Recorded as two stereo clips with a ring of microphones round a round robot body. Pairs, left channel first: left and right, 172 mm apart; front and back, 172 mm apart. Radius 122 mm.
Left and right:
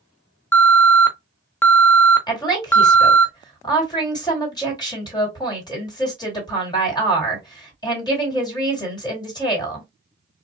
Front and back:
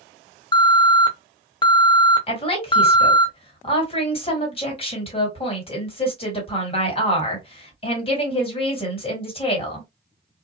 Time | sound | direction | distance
0.5 | an alarm | 25° left | 0.6 m
2.3 | a woman speaking | 35° left | 1.9 m